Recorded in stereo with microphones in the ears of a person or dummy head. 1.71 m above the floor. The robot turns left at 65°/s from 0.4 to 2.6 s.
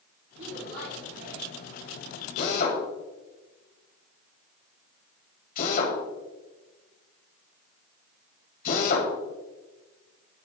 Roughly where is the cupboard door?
I don't hear a cupboard door.